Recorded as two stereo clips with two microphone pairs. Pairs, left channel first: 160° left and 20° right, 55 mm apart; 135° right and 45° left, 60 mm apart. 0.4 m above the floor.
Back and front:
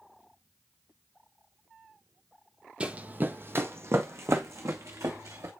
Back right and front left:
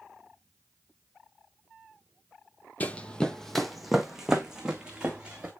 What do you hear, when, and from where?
2.8 s running footsteps: 80° right, 0.6 m; by 5.5 s 30° right, 1.7 m